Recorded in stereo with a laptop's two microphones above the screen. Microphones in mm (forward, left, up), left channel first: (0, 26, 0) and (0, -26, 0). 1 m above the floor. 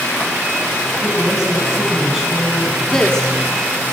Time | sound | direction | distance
1.0 | a woman speaking | 10° right (ahead or behind) | 8.5 m
2.9 | a woman speaking | 15° left (ahead or behind) | 2.0 m